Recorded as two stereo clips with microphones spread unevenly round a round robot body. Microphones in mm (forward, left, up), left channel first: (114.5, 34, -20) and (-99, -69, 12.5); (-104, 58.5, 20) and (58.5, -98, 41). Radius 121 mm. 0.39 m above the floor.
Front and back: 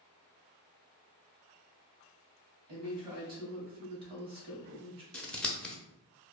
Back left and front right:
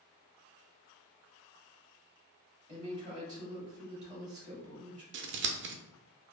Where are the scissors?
50° right, 0.5 m.